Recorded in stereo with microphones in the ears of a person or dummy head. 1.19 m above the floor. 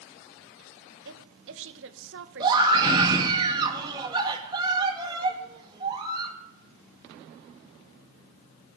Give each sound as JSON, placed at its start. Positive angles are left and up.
{"t": 1.1, "sound": "a woman speaking", "side_deg": -65, "distance_m": 1.2}
{"t": 2.4, "sound": "a scream", "side_deg": -25, "distance_m": 2.0}